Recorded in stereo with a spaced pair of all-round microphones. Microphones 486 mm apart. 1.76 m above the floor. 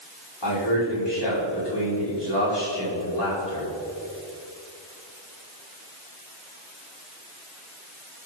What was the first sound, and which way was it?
A man speaking, 55° left (ahead or behind).